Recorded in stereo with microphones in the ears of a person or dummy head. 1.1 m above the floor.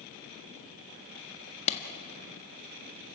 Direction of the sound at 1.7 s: 35° left (ahead or behind).